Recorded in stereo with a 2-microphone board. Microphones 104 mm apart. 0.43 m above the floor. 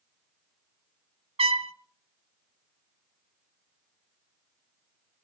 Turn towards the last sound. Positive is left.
turn(degrees=-85)